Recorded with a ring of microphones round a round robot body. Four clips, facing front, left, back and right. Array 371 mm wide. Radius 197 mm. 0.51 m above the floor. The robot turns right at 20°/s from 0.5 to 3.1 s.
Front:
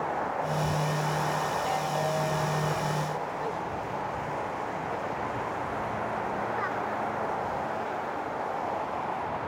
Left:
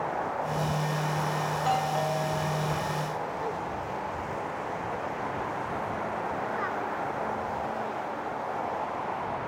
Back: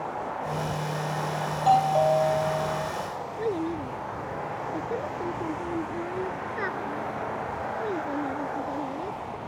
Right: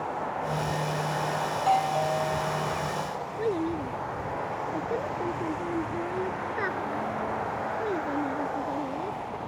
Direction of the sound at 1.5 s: 155° left.